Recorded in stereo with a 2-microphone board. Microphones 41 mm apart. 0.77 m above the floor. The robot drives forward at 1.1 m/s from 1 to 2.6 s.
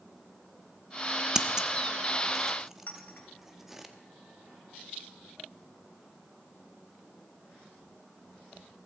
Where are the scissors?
15° right (ahead or behind), 0.7 m; by 3.9 s 10° right (ahead or behind), 1.1 m.